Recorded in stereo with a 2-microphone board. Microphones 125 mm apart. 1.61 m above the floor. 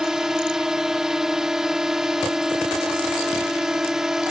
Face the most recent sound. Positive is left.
turn(degrees=-5)  # may be behind; listen again after turning